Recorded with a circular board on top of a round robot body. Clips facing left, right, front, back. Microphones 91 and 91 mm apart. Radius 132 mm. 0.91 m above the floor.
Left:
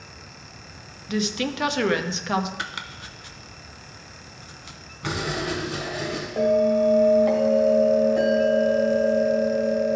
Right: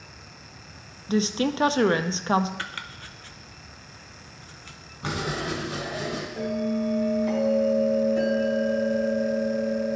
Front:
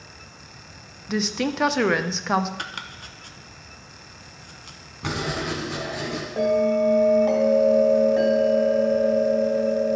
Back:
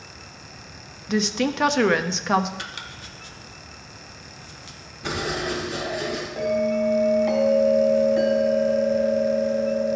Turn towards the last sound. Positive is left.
turn(degrees=55)